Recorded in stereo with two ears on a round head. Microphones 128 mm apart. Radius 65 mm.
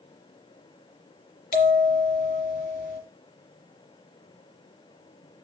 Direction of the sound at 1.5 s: 75° left (ahead or behind).